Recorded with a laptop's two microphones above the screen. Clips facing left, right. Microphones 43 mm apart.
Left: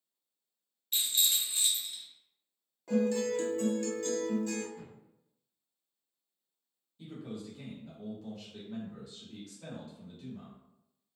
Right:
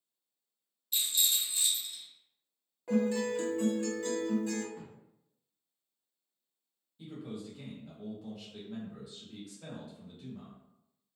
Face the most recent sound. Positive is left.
turn(degrees=-5)  # may be behind; listen again after turning